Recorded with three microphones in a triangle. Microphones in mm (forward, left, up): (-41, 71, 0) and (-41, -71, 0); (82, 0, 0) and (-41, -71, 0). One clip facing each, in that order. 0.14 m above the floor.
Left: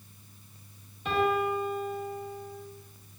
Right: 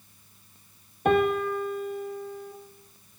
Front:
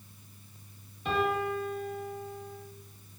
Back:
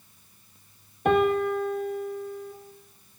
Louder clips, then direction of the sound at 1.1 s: Right 4 dB, back 8 dB; 120° right.